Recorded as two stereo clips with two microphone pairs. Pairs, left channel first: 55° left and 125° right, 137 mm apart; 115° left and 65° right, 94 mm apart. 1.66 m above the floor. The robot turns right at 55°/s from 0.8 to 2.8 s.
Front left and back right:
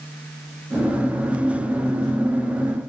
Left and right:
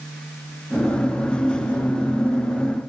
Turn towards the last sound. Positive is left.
No sound to turn to.